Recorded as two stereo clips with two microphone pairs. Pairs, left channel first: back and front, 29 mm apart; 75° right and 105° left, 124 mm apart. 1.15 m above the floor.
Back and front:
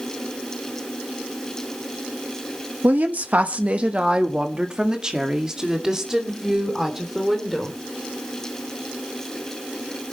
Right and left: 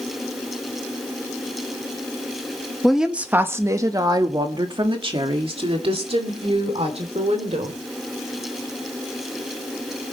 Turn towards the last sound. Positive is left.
turn(degrees=75)